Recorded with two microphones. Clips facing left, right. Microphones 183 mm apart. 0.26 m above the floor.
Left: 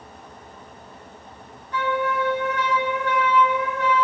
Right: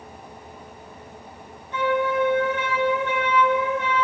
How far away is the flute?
About 4.5 m.